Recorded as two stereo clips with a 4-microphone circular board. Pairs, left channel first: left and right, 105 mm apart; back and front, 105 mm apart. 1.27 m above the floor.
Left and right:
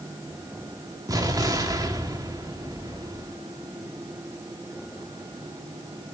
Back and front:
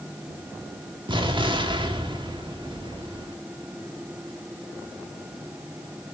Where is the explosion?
35° right, 1.7 m.